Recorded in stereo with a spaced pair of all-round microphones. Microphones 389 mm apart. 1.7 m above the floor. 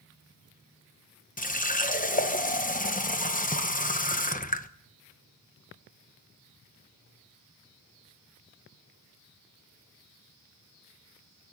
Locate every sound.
1.4 s a running tap: 20° left (ahead or behind), 0.9 m